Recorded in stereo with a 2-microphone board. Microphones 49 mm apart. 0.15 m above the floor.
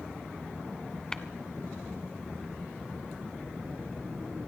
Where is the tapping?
15° left (ahead or behind), 0.7 m.